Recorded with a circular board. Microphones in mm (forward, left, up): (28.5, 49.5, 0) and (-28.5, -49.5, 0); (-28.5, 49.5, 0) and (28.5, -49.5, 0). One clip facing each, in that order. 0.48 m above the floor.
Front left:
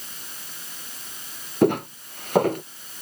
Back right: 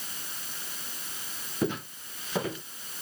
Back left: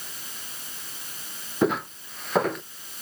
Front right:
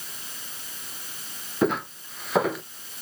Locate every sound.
1.6 s footsteps: 30° left; by 2.6 s 25° left